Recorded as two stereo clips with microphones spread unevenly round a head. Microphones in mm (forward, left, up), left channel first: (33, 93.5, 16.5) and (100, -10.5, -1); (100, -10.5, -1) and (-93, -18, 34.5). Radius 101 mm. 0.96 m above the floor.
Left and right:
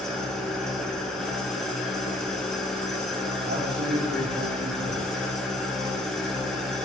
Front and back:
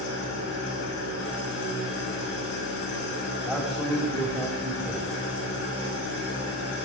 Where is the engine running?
35° left, 8.5 m.